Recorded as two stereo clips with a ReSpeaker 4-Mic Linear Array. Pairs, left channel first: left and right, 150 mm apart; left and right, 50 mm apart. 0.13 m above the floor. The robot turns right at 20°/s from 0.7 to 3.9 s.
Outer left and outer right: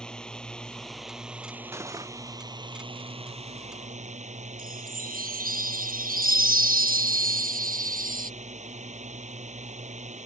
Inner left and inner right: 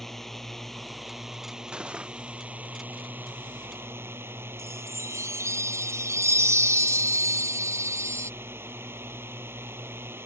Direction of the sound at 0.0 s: 175° left.